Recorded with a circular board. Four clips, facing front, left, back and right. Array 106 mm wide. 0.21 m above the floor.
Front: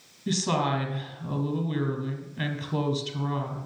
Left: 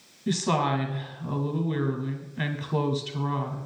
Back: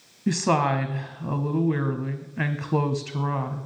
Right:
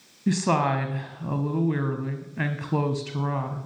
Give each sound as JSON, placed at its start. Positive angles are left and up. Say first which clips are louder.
{"t": 0.3, "sound": "a woman speaking", "louder": "right 2 dB, back 4 dB", "azimuth_deg": -150, "distance_m": 1.1}